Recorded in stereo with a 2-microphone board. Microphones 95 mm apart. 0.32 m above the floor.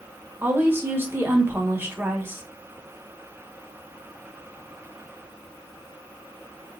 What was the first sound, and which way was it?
A woman speaking, 25° right (ahead or behind).